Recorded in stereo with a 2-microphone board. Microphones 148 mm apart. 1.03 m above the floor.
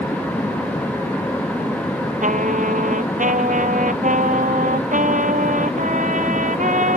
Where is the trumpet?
65° right (ahead or behind).